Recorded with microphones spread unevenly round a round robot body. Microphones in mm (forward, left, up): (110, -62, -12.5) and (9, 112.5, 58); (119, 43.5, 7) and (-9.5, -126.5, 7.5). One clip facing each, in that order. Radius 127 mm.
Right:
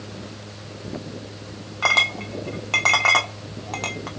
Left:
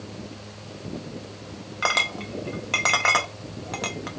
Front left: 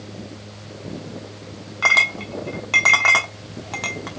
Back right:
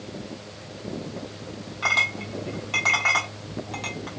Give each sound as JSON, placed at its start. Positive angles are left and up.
{"t": 1.8, "sound": "a clink", "azimuth_deg": 40, "distance_m": 1.2}